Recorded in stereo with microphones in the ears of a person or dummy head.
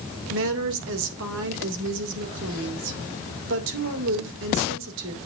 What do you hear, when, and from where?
0.3 s a woman speaking: 70° right (ahead or behind), 2.5 m